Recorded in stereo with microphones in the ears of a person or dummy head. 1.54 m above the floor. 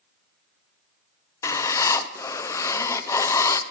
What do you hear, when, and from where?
1.4 s writing: 15° left (ahead or behind), 0.7 m